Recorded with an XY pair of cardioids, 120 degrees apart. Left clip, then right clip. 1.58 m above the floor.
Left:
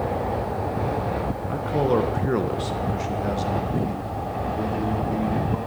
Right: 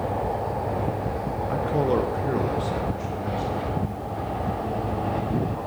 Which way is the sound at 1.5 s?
15° right.